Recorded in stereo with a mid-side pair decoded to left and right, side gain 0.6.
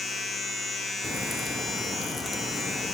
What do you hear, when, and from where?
0.0 s a machine running: 25° left, 1.1 m
1.0 s a crack: 15° left, 0.6 m